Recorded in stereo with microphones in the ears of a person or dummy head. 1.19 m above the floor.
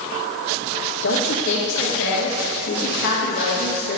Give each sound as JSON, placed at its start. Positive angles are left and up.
{"t": 1.0, "sound": "a woman speaking", "side_deg": 60, "distance_m": 1.7}